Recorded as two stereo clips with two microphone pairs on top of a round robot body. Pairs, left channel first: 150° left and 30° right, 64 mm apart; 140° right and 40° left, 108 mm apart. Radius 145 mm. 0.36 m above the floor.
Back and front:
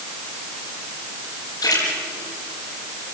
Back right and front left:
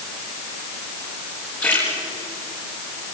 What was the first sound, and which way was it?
A splash, 145° left.